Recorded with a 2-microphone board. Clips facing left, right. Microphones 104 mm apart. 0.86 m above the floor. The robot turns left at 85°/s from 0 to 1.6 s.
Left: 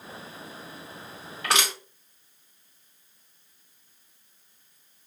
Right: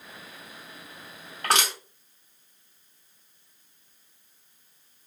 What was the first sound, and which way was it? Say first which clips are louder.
Crushing: right 1 dB; 55° right (ahead or behind).